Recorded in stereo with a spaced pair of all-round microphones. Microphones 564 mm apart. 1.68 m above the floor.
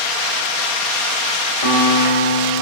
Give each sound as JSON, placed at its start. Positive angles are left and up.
{"t": 1.6, "sound": "a piano", "side_deg": 70, "distance_m": 3.0}